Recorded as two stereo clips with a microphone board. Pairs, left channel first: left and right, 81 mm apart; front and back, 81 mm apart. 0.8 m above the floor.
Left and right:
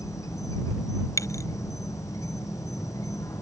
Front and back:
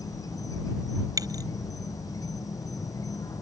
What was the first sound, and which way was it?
An insect, 45° left.